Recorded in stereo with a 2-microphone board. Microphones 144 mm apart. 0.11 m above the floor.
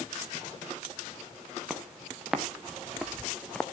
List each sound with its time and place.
1.7 s footsteps: 5° right (ahead or behind), 2.5 m; by 3.6 s 5° left (ahead or behind), 1.0 m